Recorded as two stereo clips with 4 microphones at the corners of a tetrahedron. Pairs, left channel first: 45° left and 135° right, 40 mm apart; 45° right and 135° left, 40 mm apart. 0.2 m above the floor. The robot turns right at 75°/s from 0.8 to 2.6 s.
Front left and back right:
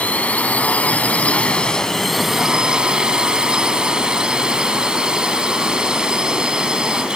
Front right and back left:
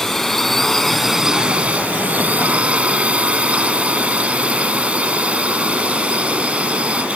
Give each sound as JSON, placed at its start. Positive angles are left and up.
{"t": 0.0, "sound": "a drone", "azimuth_deg": 35}